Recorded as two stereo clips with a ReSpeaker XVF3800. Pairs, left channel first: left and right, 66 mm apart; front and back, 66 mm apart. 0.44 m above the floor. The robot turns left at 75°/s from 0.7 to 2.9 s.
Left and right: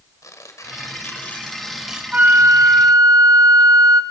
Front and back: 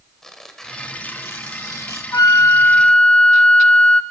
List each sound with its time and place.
0.2 s tearing paper: 80° left, 1.7 m; by 2.0 s 20° right, 1.7 m
2.1 s a flute: 20° right, 0.7 m; by 4.0 s 80° right, 0.7 m